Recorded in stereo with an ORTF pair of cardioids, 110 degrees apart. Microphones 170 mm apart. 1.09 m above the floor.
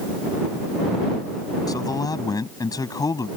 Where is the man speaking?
20° left.